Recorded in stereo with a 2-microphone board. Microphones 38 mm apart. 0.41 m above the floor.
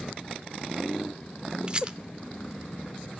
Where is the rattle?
25° right (ahead or behind), 0.5 m.